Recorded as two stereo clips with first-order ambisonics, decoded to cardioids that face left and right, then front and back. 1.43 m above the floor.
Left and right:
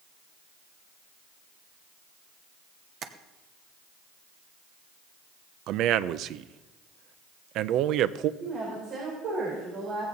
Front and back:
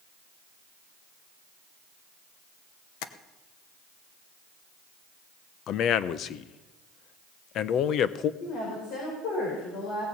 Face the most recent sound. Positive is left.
turn(degrees=-35)